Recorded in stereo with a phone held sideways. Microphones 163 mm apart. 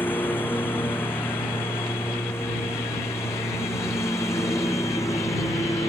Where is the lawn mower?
10° left (ahead or behind); by 5.9 s 20° left (ahead or behind).